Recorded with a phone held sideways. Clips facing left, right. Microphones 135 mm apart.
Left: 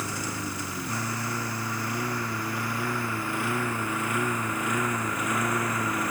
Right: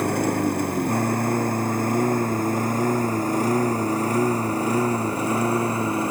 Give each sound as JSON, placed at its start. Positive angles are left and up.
{"t": 0.0, "sound": "a lawn mower", "side_deg": -55}